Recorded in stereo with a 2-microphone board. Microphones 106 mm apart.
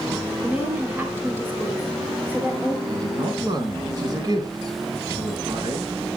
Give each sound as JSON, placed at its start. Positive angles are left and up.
{"t": 0.4, "sound": "a woman speaking", "side_deg": -20, "distance_m": 4.0}
{"t": 2.9, "sound": "a woman speaking", "side_deg": -40, "distance_m": 3.0}